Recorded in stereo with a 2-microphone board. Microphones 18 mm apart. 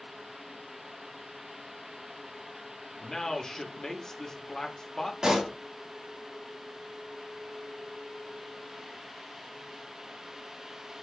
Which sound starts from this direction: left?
A man speaking, at 3.0 s.